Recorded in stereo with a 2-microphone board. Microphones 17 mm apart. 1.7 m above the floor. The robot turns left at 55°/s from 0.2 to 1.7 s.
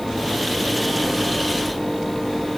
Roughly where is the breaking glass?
No breaking glass in this recording.